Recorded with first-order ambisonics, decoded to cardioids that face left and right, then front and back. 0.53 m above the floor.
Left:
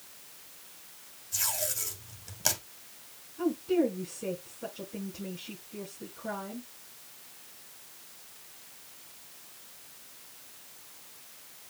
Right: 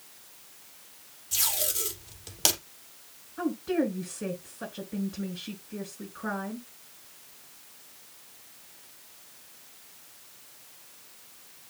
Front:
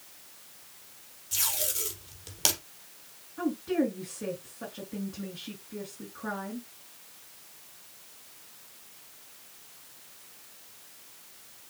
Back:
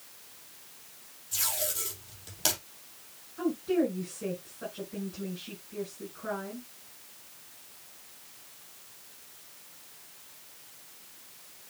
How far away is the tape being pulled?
About 4 m.